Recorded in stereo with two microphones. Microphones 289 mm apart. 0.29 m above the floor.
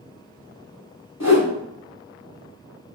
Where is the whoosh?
65° left (ahead or behind), 1.0 m.